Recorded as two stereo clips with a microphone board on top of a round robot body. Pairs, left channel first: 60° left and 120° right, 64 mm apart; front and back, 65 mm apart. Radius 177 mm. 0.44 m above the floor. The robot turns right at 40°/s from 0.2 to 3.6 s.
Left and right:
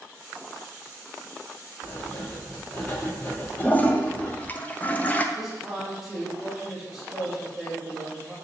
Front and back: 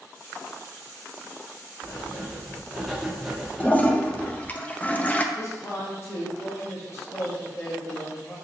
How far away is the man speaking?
About 1.4 m.